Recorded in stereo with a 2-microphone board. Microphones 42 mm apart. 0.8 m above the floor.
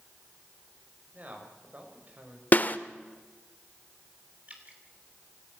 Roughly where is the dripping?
Right.